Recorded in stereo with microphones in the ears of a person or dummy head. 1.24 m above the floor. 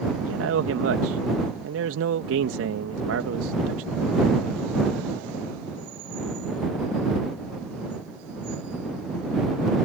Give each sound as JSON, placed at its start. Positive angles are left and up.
{"t": 0.2, "sound": "a man speaking", "side_deg": -85}